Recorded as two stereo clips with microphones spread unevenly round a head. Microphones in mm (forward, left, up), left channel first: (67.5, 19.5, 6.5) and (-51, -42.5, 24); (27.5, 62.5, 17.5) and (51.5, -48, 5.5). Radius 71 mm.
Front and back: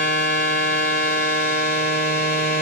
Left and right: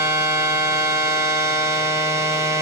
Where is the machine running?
10° right, 1.3 m.